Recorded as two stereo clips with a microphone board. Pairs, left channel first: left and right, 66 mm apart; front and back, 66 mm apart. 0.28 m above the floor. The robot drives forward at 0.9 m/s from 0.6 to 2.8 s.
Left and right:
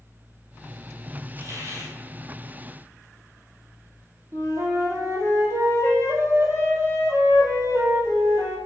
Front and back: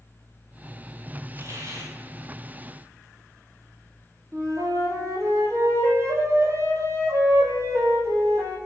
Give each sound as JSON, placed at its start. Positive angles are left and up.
{"t": 1.4, "sound": "a hiss", "azimuth_deg": -130, "distance_m": 2.0}
{"t": 4.3, "sound": "a flute", "azimuth_deg": -140, "distance_m": 2.0}